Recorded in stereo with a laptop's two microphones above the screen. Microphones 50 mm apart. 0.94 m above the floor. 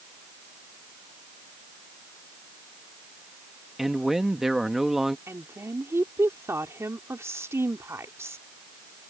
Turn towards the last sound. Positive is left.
turn(degrees=-65)  # may be behind; listen again after turning